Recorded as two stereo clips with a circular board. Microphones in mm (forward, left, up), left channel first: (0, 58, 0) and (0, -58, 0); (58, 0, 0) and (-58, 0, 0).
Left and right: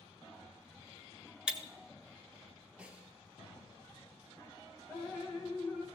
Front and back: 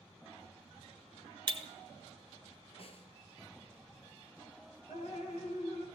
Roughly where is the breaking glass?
Behind.